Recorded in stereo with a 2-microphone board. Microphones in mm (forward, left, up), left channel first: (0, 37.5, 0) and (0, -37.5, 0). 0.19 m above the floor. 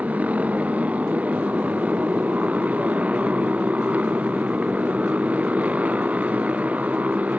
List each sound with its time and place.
0.0 s a motorcycle: 20° right (ahead or behind)